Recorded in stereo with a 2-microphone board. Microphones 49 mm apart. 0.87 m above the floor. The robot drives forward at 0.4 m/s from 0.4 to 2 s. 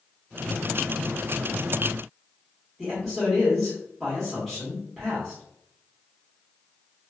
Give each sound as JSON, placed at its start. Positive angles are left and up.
{"t": 2.8, "sound": "a man speaking", "side_deg": 5, "distance_m": 1.4}